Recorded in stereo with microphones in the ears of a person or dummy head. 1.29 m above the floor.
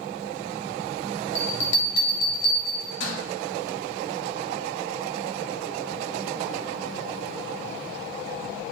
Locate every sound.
1.4 s a bell: 65° left (ahead or behind), 0.9 m